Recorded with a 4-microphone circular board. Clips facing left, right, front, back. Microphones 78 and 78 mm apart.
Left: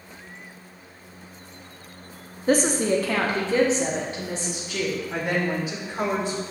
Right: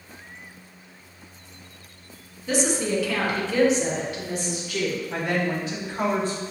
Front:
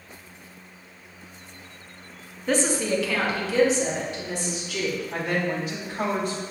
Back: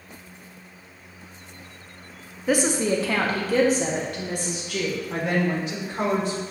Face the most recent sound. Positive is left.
turn(degrees=160)